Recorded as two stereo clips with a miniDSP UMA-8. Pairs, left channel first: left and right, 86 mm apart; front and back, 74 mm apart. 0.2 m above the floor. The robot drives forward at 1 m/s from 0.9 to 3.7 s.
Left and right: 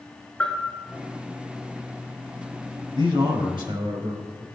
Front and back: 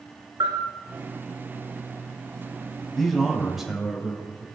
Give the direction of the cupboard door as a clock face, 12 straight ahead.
No cupboard door in this recording.